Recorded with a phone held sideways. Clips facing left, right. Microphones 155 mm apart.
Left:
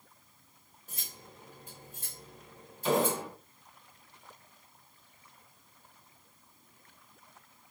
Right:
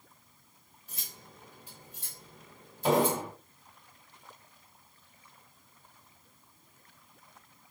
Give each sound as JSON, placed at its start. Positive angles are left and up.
{"t": 0.9, "sound": "cutlery clinking", "side_deg": 50, "distance_m": 1.4}
{"t": 2.8, "sound": "an explosion", "side_deg": -60, "distance_m": 1.7}